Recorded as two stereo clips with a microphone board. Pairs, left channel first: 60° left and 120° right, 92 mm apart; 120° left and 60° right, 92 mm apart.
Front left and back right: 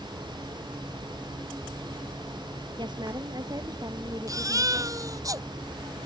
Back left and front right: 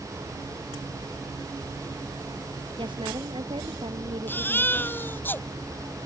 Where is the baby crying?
170° right.